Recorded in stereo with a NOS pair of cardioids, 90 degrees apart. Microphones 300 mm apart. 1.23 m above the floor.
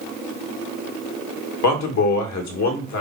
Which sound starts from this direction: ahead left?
A man speaking, at 1.6 s.